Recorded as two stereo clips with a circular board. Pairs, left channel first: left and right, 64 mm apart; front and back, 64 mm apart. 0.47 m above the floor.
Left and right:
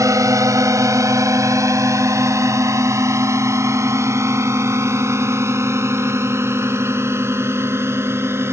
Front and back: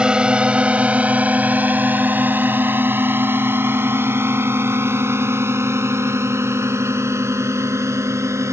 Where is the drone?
105° right; by 8.5 s 140° right.